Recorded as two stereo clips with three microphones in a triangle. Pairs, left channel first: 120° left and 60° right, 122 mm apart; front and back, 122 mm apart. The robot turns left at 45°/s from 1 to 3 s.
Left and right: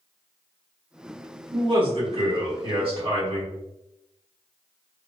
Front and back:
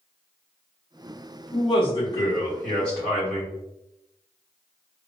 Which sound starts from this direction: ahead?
A man speaking, at 1.5 s.